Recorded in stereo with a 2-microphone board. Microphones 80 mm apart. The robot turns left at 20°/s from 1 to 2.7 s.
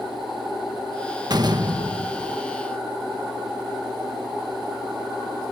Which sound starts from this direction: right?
A door slam, at 1.3 s.